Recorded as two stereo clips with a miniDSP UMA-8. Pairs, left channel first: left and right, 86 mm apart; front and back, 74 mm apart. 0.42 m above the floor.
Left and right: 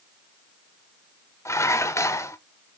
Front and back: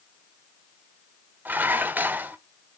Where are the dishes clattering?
125° left, 0.8 m.